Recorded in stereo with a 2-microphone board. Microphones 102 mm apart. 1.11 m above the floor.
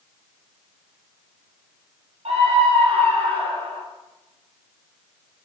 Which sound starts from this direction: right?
A scream, at 2.2 s.